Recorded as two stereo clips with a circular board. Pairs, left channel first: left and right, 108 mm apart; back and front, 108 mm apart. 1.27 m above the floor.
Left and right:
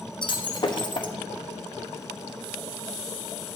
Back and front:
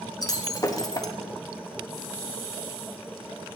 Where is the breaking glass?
130° left, 1.0 m.